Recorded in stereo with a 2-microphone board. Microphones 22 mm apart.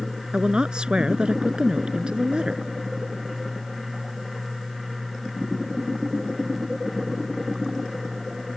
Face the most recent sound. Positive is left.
turn(degrees=-45)  # may be behind; listen again after turning